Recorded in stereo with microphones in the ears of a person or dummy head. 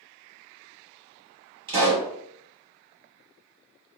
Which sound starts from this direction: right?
A pop, at 1.7 s.